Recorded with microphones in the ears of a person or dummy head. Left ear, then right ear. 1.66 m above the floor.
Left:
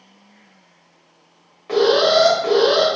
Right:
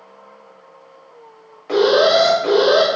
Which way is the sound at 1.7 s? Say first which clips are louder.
Right 1 dB; centre (ahead or behind).